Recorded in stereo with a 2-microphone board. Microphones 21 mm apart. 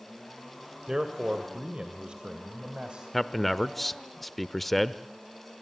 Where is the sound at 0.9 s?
30° right (ahead or behind), 1.9 m; by 3.0 s 55° right (ahead or behind), 3 m.